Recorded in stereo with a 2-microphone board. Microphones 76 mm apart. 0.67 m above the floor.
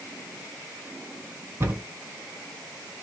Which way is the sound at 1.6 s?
35° right (ahead or behind).